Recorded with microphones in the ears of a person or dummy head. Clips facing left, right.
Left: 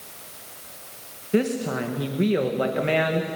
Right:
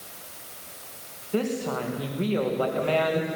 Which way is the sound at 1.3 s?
25° left (ahead or behind).